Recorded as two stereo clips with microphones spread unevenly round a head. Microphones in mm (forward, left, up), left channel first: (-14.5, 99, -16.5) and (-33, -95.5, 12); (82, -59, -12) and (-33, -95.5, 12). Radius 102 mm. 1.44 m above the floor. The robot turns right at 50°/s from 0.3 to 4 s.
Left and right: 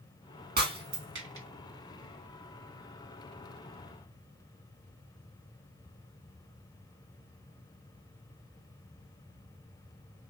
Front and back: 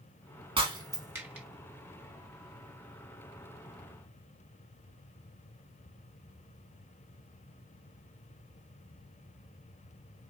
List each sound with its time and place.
0.6 s breaking glass: 130° right, 1.7 m; by 1.5 s 85° right, 1.7 m